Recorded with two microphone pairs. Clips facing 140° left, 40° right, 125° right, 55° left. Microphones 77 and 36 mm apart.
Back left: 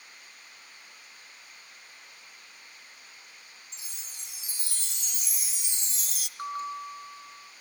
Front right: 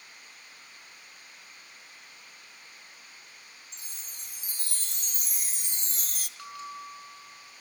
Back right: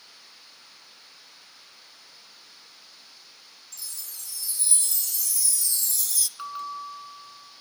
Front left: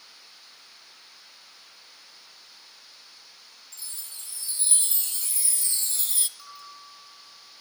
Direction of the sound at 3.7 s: Straight ahead.